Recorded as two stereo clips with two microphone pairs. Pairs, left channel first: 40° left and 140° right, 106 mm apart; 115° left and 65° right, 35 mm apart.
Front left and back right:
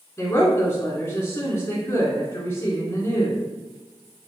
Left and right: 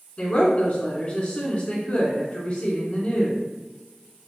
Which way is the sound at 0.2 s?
90° left.